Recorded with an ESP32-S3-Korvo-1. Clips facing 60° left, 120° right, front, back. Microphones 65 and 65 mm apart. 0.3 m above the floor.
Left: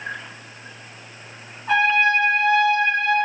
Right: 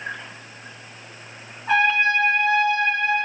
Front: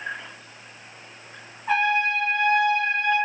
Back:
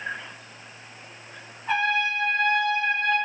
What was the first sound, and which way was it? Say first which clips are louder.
A trumpet: left 1 dB, front 2 dB; 85° right.